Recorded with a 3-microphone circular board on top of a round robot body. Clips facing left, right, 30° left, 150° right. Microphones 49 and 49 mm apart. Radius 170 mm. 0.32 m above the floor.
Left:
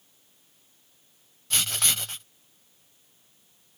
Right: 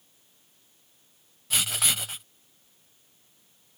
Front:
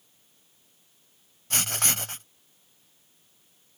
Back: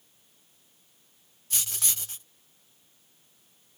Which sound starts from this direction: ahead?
Writing, at 1.5 s.